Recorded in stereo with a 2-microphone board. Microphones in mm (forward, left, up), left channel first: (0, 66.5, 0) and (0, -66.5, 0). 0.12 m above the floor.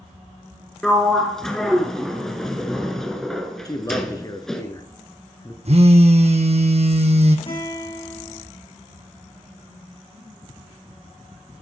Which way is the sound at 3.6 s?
30° left (ahead or behind).